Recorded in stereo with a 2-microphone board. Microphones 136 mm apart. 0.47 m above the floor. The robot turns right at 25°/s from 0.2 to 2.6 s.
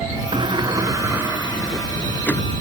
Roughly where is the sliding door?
Ahead right.